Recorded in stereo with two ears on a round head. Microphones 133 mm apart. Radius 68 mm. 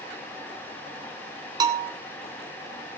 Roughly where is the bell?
Right.